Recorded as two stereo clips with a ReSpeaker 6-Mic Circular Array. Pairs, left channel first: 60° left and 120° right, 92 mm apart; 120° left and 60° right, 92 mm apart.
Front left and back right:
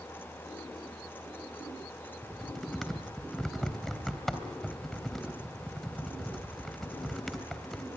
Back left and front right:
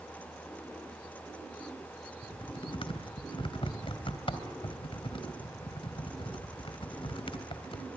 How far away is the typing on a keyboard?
About 2.5 m.